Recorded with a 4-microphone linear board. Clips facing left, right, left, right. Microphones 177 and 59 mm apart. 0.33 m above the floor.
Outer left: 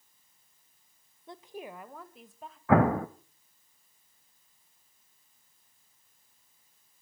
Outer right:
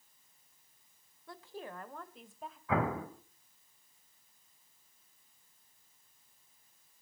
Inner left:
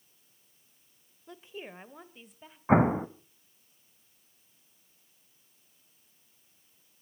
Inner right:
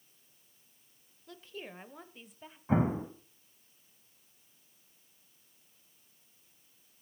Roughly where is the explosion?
Left.